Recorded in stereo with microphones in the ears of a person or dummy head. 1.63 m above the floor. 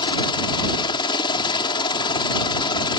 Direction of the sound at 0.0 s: 25° left (ahead or behind).